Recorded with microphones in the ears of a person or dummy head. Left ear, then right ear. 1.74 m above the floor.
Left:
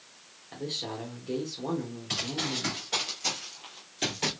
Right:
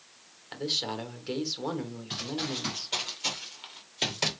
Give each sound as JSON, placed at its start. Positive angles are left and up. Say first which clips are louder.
{"t": 0.5, "sound": "a man speaking", "louder": "right 4 dB", "side_deg": -50, "distance_m": 1.5}
{"t": 2.1, "sound": "running footsteps", "louder": "left 3 dB", "side_deg": 30, "distance_m": 1.9}